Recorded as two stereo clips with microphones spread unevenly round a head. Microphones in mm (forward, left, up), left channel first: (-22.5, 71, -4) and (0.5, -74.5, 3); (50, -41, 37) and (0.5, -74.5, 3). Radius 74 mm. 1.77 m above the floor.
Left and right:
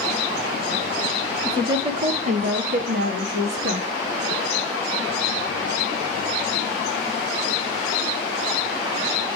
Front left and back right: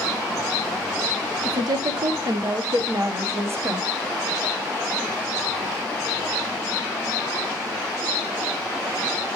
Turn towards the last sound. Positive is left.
turn(degrees=-95)